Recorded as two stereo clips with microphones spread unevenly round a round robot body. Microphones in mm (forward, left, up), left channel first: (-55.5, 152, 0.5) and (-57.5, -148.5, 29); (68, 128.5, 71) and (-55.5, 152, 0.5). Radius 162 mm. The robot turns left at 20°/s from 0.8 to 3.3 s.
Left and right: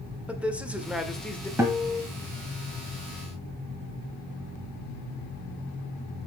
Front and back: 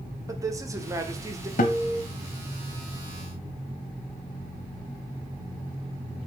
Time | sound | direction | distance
0.3 | a man speaking | straight behind | 1.2 m
1.6 | a guitar | 10° right | 1.0 m